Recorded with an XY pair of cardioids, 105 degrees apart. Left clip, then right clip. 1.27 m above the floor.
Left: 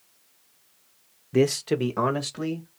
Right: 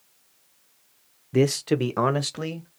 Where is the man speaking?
Straight ahead, 0.5 m; by 2.7 s 35° right, 1.1 m.